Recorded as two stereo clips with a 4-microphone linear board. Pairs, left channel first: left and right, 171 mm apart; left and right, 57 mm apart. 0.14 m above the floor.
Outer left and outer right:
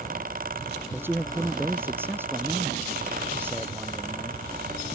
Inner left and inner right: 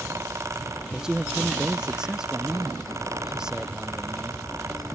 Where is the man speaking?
10° right (ahead or behind).